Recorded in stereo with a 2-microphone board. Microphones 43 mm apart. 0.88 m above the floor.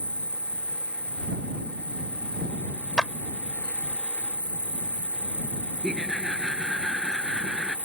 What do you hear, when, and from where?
0.0 s an insect: 30° left (ahead or behind)
3.0 s a clap: 20° left (ahead or behind)
5.8 s laughter: 5° left (ahead or behind)